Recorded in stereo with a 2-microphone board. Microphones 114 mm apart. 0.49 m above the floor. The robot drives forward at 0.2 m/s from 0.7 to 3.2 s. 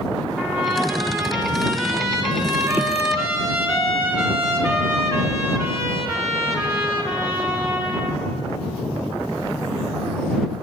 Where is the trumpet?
20° right (ahead or behind), 1.9 m.